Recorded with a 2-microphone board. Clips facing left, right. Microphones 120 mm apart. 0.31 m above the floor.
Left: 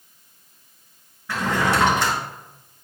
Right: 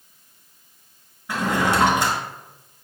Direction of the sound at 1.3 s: 15° right (ahead or behind).